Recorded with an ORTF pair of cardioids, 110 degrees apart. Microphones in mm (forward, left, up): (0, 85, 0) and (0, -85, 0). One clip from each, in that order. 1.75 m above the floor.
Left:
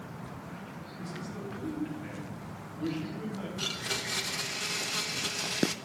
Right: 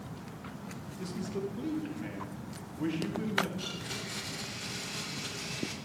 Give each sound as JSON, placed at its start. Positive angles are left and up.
{"t": 1.0, "sound": "a man speaking", "azimuth_deg": -45, "distance_m": 3.0}
{"t": 3.6, "sound": "a blender", "azimuth_deg": 40, "distance_m": 1.0}